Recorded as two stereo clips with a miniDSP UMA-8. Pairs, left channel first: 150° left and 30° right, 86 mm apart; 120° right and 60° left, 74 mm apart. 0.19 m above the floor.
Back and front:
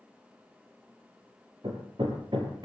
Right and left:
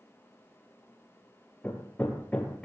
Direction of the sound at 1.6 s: 50° right.